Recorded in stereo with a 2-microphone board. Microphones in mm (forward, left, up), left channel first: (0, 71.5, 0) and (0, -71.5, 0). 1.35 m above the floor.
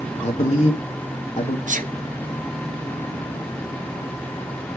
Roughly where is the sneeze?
Right.